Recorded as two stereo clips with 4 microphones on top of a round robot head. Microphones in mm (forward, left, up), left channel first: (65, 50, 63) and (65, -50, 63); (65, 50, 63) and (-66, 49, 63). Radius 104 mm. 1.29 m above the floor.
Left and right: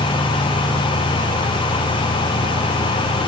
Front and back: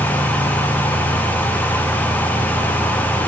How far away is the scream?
No scream in this recording.